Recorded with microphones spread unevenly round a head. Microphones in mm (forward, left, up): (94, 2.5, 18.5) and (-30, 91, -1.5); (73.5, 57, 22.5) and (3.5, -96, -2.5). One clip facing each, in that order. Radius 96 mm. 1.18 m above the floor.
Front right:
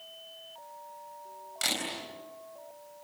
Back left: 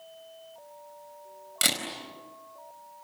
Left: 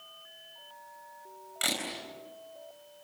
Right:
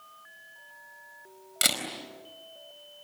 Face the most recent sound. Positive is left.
turn(degrees=-170)